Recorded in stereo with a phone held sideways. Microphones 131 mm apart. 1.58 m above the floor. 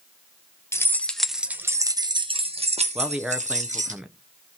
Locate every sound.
0.7 s keys jangling: 20° left (ahead or behind), 0.9 m; by 4.0 s 70° right (ahead or behind), 1.6 m
3.0 s a man speaking: 5° right (ahead or behind), 0.6 m